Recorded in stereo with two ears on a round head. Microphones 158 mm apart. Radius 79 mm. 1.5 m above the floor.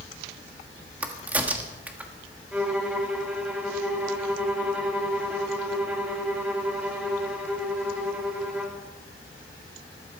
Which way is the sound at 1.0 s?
10° right (ahead or behind).